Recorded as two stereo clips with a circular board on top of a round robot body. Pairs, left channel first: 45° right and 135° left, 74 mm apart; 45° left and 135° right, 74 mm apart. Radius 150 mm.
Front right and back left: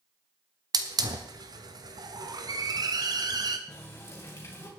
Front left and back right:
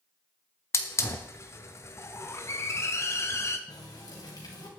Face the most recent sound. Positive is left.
turn(degrees=10)